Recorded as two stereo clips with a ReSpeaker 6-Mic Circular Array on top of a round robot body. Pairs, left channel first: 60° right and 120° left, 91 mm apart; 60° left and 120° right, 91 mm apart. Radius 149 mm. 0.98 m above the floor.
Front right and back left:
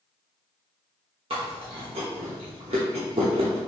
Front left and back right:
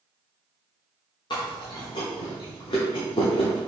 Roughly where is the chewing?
Left.